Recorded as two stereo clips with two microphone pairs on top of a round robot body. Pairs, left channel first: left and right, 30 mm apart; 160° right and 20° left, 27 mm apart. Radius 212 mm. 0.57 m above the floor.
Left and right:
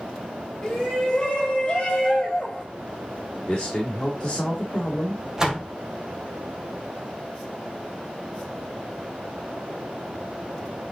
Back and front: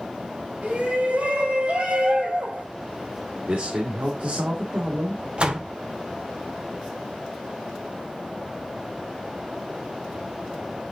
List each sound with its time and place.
0.6 s a shout: 10° left, 7 m; by 2.6 s 30° left, 4.5 m
3.5 s a man speaking: 30° left, 2 m
5.4 s a door slam: 20° right, 2 m